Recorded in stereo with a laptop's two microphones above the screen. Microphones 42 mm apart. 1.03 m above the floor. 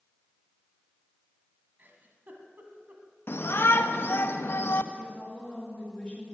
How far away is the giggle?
About 1.7 m.